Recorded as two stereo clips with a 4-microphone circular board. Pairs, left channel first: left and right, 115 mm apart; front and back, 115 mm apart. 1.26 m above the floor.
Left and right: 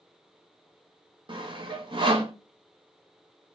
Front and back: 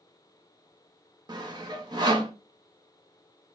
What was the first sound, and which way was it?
Sawing, 130° right.